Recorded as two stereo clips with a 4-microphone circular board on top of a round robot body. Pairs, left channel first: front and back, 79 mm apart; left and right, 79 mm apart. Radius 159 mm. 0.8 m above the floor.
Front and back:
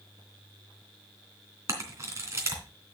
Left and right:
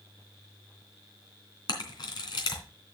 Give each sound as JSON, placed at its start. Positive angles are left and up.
{"t": 1.7, "sound": "a camera shutter", "azimuth_deg": 125, "distance_m": 3.0}